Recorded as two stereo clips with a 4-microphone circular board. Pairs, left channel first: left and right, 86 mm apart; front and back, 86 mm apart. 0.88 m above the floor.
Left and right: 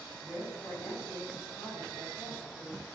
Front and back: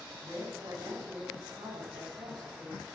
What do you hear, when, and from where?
0.2 s a woman speaking: 140° left, 8 m